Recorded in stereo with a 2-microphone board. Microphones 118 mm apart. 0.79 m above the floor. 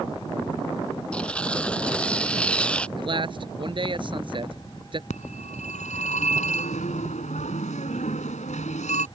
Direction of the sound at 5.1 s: 90° left.